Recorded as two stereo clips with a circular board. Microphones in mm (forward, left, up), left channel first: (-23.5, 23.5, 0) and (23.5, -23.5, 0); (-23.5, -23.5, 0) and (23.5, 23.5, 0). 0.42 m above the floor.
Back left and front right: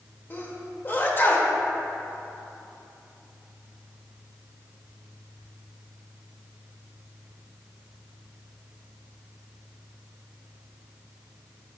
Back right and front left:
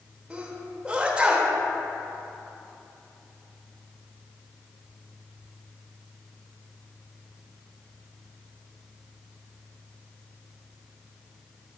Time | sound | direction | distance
0.3 | a sneeze | 105° left | 1.4 m